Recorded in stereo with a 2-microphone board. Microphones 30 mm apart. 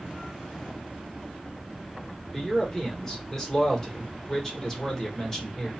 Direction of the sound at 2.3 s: 15° left (ahead or behind).